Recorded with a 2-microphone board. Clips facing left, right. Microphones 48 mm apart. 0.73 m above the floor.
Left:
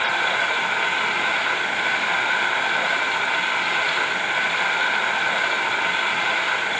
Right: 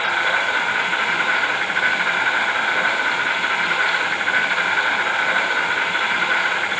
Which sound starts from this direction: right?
An insect, at 0.0 s.